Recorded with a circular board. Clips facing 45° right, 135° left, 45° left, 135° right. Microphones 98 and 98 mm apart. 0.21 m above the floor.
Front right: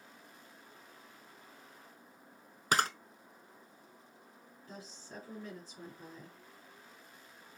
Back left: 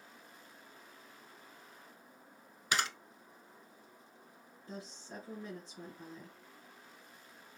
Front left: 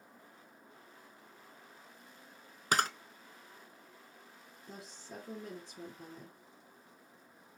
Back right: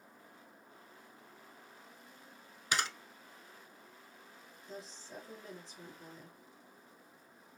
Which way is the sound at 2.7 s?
Straight ahead.